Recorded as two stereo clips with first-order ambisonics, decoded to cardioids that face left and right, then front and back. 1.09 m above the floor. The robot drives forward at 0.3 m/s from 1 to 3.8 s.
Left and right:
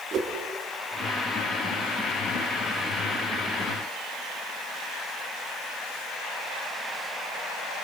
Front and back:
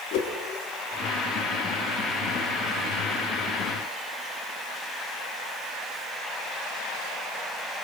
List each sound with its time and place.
0.1 s a whoosh: 25° right, 3 m